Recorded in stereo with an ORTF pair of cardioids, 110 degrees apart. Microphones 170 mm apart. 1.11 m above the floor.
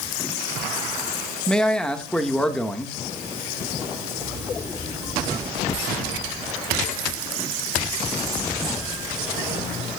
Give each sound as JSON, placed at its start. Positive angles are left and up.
{"t": 1.5, "sound": "a man speaking", "azimuth_deg": 5, "distance_m": 1.5}